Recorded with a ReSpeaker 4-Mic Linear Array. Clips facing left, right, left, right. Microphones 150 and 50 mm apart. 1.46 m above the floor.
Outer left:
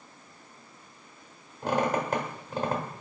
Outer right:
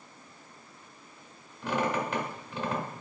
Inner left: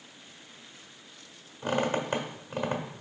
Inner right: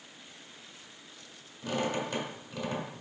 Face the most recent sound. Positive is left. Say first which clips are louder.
# outer left 3 dB, inner left 4 dB
turn(degrees=40)  # may be behind; listen again after turning